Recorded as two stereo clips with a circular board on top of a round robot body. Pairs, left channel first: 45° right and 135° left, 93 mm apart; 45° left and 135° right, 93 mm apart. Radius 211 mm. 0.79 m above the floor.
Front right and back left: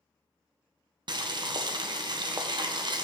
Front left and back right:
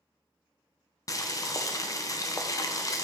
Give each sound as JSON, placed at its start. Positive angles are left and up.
{"t": 1.1, "sound": "boiling", "azimuth_deg": 95, "distance_m": 0.7}